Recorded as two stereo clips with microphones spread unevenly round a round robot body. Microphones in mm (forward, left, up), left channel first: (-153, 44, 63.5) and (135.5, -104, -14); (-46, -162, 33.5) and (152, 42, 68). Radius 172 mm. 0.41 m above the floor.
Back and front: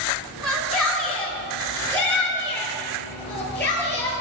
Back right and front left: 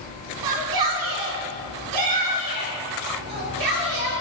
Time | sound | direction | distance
0.4 | a shout | 60° left | 5 m